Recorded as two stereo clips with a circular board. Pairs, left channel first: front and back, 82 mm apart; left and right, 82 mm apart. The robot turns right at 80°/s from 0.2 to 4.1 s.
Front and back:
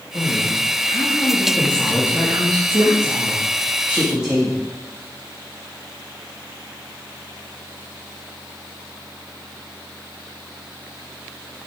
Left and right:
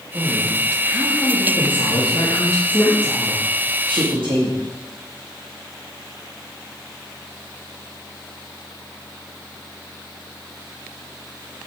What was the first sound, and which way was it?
A woman speaking, 55° right.